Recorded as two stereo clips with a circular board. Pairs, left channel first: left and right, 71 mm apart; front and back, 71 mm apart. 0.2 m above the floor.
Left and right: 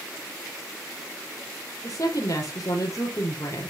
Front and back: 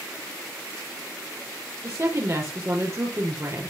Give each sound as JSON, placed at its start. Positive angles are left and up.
{"t": 1.8, "sound": "a woman speaking", "azimuth_deg": 130, "distance_m": 5.0}